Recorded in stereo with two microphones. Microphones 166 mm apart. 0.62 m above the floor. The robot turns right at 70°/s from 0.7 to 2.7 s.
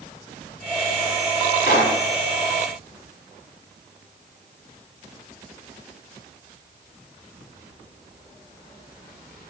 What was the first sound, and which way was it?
A pop, 70° left (ahead or behind).